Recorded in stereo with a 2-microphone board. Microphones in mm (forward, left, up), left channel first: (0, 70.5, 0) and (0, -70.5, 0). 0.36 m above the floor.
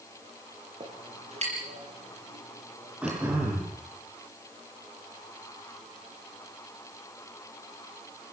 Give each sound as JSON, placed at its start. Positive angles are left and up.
{"t": 0.8, "sound": "a clink", "side_deg": -50, "distance_m": 6.0}
{"t": 3.0, "sound": "throat clearing", "side_deg": -10, "distance_m": 7.0}